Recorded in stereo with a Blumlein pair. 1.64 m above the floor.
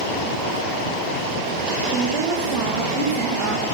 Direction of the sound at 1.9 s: 20° right.